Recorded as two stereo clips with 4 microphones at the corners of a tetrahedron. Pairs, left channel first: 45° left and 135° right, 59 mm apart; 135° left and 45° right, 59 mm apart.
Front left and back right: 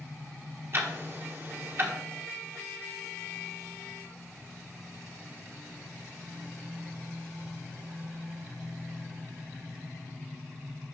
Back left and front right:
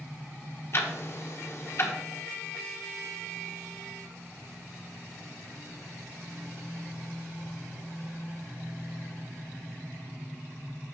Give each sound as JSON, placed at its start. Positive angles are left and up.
{"t": 0.7, "sound": "ticking", "azimuth_deg": 180, "distance_m": 1.2}